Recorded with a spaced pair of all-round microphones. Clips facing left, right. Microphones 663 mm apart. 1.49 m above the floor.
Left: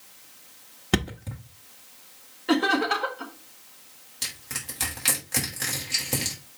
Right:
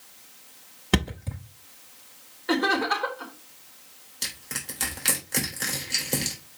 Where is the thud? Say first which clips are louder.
Even; 5° right (ahead or behind), 1.1 m.